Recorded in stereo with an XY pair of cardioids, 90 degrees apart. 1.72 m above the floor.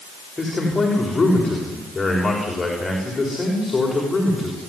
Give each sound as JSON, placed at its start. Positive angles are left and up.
{"t": 0.4, "sound": "a man speaking", "azimuth_deg": 25, "distance_m": 6.5}